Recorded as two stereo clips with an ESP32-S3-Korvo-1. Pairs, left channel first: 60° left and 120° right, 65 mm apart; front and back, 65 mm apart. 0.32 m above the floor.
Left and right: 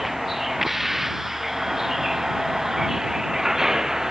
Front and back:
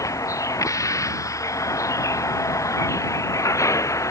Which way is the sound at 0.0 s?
35° right.